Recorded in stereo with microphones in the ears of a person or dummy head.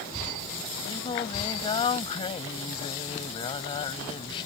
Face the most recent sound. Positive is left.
turn(degrees=30)  # may be behind; listen again after turning